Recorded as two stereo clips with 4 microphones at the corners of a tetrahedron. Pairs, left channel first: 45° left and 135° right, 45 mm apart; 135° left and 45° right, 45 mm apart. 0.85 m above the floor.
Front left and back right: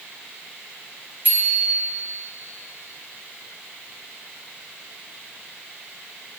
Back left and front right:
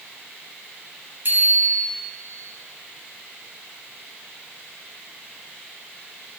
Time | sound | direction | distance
1.2 | a bicycle bell | 85° right | 4 m